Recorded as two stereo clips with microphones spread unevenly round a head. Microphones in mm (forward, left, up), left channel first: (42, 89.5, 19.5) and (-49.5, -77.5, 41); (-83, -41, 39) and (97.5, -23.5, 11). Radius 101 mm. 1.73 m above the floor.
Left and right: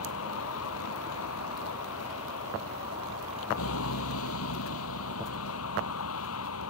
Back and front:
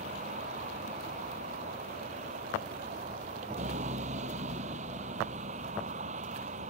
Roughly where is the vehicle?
Ahead left.